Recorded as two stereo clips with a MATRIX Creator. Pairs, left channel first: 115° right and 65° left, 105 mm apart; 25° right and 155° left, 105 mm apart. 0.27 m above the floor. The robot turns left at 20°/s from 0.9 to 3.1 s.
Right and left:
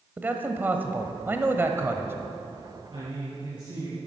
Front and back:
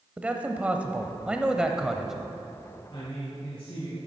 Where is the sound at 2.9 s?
25° left, 4 m; by 4.0 s 20° left, 4 m.